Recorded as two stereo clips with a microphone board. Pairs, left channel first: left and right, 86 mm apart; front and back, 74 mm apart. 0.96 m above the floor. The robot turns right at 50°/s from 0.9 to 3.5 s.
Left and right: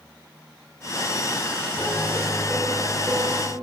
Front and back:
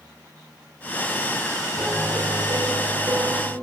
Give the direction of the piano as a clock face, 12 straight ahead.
7 o'clock.